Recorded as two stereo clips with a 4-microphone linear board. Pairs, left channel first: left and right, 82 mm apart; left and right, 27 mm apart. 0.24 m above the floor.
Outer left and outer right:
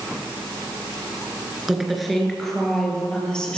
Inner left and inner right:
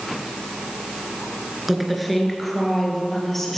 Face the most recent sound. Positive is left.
turn(degrees=10)  # may be behind; listen again after turning